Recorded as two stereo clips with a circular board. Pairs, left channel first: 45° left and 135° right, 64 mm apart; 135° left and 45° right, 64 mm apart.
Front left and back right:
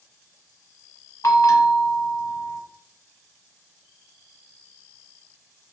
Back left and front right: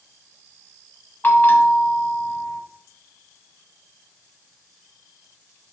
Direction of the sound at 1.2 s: 75° left.